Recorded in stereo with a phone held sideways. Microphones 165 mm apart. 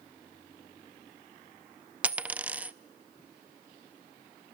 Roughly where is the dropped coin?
Centre.